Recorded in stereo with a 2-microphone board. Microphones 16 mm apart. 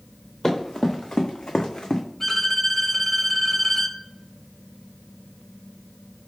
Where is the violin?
25° left (ahead or behind), 0.7 m.